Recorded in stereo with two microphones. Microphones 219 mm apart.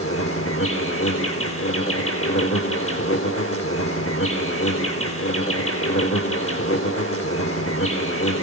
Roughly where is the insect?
Left.